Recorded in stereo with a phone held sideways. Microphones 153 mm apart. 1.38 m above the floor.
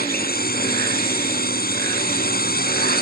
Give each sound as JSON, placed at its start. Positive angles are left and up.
{"t": 0.0, "sound": "a drone", "side_deg": 80}